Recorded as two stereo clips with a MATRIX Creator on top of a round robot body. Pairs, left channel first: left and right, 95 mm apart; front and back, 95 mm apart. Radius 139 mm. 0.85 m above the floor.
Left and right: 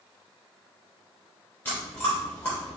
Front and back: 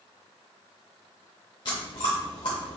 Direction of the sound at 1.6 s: 25° left.